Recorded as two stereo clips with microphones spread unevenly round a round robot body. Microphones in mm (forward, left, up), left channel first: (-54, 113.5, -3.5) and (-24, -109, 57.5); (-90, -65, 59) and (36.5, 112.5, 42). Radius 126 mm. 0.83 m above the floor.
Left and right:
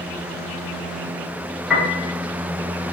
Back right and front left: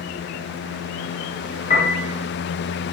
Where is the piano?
Straight behind, 1.4 m.